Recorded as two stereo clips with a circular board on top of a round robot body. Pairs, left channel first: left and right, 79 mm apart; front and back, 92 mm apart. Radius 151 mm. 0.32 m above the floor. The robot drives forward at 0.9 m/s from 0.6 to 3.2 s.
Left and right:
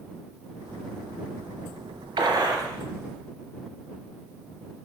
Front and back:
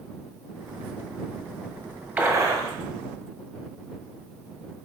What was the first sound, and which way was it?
A gunshot, 105° right.